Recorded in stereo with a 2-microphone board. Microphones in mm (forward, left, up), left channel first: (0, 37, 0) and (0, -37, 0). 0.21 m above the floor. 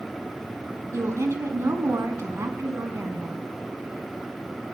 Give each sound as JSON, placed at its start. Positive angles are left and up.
{"t": 0.9, "sound": "a woman speaking", "side_deg": -45, "distance_m": 1.9}